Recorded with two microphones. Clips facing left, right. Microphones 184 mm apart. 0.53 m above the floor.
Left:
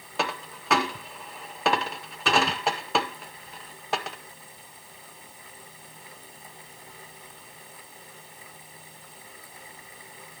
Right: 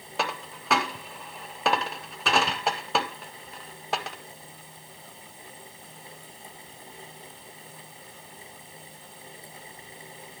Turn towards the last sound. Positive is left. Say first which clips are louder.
# left 1 dB
turn(degrees=0)  # may be behind; listen again after turning